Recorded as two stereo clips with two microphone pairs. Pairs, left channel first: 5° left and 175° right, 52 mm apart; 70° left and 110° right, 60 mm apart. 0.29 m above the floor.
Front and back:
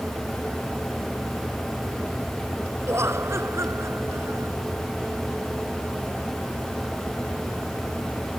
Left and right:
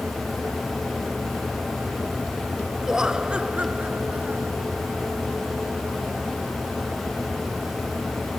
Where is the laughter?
170° left; by 4.5 s 170° right.